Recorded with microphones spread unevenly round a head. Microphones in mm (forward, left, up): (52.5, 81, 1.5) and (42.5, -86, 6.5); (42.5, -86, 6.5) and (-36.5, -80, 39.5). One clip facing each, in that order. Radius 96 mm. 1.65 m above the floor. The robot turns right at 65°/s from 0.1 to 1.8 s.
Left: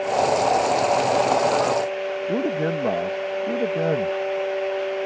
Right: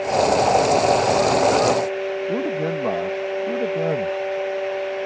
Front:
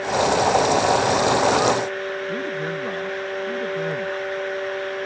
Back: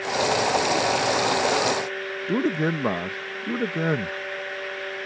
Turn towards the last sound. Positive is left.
turn(degrees=170)